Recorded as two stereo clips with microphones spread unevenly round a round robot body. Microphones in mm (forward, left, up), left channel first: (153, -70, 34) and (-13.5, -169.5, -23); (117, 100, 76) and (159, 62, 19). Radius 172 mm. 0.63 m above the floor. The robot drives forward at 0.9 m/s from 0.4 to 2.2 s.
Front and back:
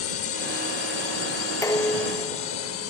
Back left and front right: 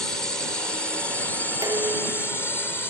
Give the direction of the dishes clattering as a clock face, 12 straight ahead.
1 o'clock.